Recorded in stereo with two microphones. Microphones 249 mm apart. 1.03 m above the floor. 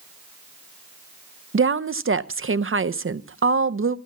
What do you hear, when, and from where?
1.5 s a woman speaking: 55° right (ahead or behind), 0.5 m